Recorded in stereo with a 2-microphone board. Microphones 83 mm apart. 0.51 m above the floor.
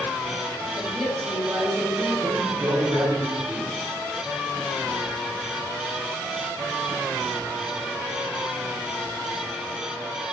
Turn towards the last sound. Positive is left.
turn(degrees=-35)  # may be behind; listen again after turning